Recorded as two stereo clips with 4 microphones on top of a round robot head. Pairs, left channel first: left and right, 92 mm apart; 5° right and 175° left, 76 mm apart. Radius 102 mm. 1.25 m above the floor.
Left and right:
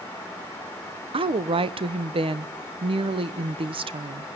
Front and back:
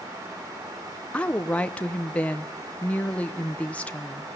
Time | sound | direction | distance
1.1 | a woman speaking | 75° right | 0.8 m